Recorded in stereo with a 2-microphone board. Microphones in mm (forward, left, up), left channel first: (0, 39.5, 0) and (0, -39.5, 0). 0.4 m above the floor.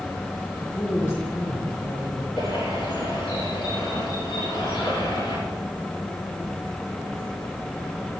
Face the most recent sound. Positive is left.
turn(degrees=80)